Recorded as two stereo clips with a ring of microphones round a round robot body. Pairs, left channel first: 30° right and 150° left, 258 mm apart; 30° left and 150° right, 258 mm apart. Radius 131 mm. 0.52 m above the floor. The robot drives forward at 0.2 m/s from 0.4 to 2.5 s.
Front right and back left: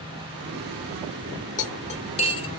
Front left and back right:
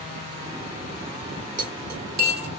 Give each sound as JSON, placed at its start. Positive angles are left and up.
{"t": 1.6, "sound": "cutlery clinking", "azimuth_deg": -90, "distance_m": 1.1}